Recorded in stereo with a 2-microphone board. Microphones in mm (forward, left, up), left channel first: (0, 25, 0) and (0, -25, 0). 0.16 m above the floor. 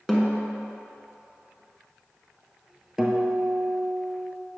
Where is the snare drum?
5° left (ahead or behind), 1.2 m.